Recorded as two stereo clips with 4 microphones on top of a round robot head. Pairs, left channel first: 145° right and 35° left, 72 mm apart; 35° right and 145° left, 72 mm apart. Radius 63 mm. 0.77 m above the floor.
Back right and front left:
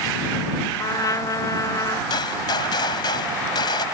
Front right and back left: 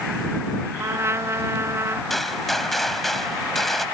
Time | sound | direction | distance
0.8 | a trumpet | 170° right | ?
2.1 | a gunshot | 120° right | ?